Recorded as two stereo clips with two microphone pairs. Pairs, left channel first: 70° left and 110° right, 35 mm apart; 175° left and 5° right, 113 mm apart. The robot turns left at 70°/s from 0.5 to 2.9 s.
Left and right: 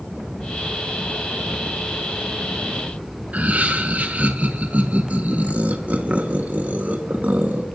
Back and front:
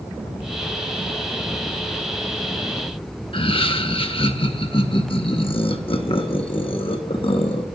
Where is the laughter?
155° right, 1.4 m.